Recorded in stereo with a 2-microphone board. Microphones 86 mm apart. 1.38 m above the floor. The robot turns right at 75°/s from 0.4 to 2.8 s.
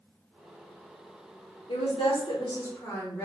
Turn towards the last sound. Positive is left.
turn(degrees=160)